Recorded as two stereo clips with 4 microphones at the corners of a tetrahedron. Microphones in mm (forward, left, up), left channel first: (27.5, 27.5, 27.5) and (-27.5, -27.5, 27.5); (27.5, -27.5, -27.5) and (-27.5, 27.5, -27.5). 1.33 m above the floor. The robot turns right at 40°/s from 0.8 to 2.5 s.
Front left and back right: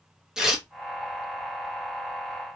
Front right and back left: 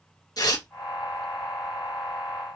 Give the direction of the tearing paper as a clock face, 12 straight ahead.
2 o'clock.